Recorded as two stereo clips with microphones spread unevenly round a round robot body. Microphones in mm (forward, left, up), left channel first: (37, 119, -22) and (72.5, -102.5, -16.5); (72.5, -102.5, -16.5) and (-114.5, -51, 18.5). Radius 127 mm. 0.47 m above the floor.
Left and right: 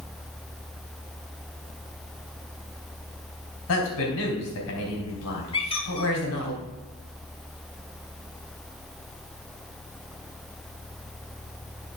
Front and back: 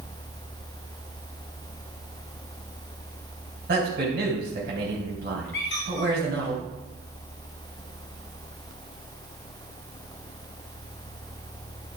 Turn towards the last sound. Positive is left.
turn(degrees=35)